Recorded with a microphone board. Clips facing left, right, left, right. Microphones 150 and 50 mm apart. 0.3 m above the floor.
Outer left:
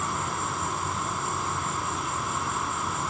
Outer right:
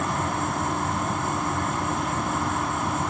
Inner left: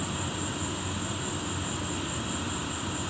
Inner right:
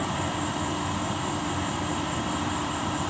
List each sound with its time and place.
0.0 s an insect: 60° right (ahead or behind), 2 m